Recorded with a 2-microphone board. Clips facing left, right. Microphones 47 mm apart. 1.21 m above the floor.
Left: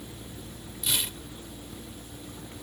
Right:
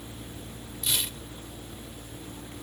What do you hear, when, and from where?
0.8 s tearing paper: 10° left (ahead or behind)